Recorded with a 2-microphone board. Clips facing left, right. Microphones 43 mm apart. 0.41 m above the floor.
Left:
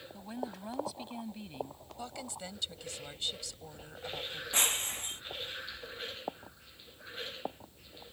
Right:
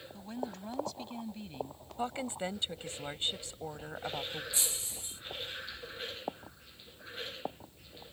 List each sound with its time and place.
0.1 s a woman speaking: 5° left (ahead or behind)
2.0 s a woman speaking: 30° right (ahead or behind)
4.5 s breaking glass: 55° left (ahead or behind)